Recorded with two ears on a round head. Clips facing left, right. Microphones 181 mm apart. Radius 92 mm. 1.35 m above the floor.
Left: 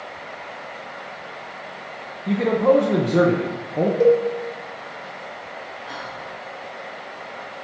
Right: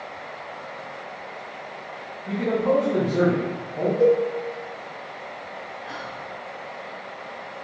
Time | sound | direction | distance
2.3 | a man speaking | 75° left (ahead or behind) | 0.7 m
4.0 | a cowbell | 60° left (ahead or behind) | 1.2 m
5.9 | whispering | 5° right (ahead or behind) | 0.7 m